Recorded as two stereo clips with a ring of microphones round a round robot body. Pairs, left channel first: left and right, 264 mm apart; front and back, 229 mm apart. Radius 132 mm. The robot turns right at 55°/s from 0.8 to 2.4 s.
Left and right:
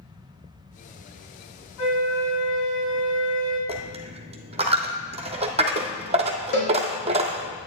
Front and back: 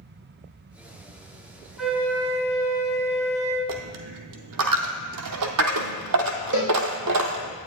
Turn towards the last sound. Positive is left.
turn(degrees=140)